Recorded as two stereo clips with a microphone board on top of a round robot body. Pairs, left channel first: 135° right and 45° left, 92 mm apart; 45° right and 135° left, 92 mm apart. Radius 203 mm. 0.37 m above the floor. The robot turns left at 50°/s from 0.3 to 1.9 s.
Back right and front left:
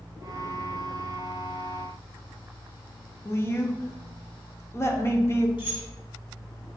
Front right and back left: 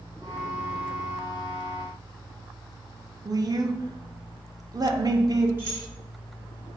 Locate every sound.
3.2 s a woman speaking: 170° left, 1.5 m
5.6 s keys jangling: 160° right, 3 m